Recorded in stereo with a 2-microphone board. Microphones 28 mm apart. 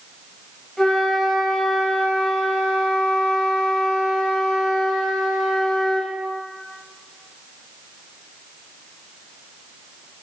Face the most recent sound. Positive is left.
turn(degrees=20)  # may be behind; listen again after turning